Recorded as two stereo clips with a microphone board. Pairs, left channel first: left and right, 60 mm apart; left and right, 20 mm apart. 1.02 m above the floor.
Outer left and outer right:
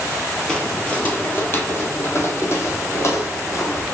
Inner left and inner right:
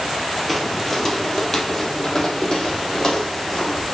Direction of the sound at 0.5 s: 15° left (ahead or behind).